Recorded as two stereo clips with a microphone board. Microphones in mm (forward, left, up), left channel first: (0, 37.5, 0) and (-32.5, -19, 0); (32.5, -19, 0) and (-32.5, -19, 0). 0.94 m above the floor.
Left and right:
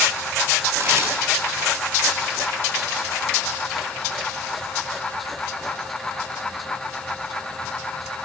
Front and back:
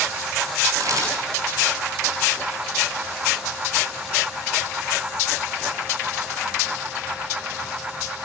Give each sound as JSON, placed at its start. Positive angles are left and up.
{"t": 0.8, "sound": "a camera shutter", "azimuth_deg": -160, "distance_m": 3.5}